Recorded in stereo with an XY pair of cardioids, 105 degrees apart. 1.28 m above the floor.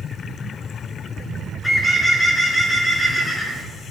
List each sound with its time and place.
1.6 s a bird: 10° left, 2.5 m